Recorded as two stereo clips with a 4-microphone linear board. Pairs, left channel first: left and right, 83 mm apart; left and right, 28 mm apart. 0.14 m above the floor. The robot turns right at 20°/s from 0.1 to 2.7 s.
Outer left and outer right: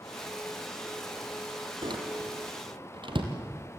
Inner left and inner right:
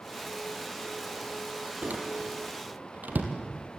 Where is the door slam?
65° right (ahead or behind), 3 m; by 3.3 s 75° right (ahead or behind), 3 m.